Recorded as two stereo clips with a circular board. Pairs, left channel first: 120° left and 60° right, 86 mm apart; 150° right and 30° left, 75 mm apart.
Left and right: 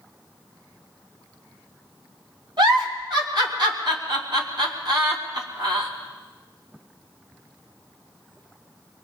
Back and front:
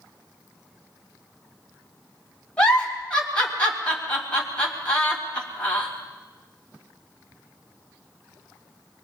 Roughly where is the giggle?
Right.